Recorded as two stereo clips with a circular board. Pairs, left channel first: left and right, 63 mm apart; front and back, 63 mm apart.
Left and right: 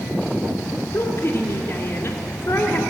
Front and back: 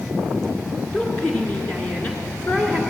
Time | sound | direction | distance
0.9 | a woman speaking | 65° left | 2 m